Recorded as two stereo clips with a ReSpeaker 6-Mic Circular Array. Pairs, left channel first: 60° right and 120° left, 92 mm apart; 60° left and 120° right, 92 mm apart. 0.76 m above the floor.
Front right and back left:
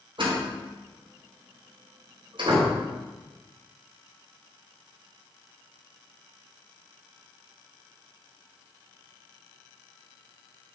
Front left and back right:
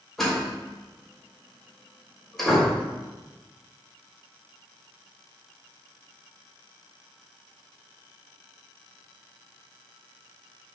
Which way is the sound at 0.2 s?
145° left.